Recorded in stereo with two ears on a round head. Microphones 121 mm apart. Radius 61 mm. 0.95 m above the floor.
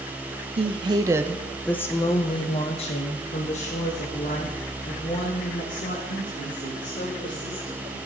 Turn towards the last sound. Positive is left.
turn(degrees=65)  # may be behind; listen again after turning